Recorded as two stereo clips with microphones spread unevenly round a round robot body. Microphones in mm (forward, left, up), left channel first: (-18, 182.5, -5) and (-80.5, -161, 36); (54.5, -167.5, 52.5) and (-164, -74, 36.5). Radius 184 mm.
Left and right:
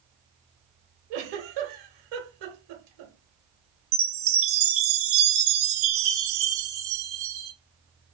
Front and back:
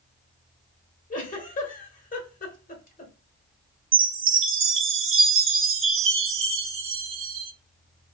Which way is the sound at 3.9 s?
160° right.